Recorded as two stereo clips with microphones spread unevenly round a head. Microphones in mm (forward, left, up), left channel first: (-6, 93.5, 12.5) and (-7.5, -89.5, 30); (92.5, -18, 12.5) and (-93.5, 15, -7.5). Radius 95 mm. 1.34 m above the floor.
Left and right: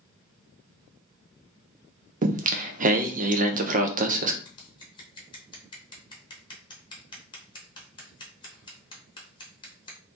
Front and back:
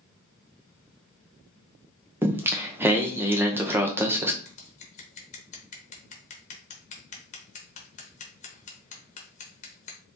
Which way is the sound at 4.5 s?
25° left.